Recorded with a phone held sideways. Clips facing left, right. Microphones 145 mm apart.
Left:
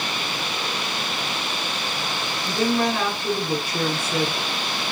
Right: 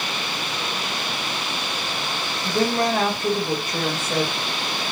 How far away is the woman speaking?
About 4 m.